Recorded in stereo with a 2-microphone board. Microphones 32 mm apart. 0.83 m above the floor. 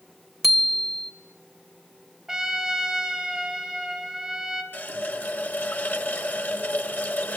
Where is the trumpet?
10° right (ahead or behind), 3.5 m.